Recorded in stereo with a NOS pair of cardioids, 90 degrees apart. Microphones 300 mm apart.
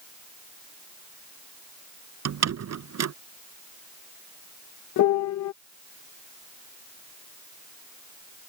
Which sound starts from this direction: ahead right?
A door slam, at 2.2 s.